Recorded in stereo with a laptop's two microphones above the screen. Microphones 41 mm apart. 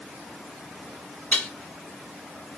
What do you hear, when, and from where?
1.3 s dishes clattering: 35° left (ahead or behind), 1.0 m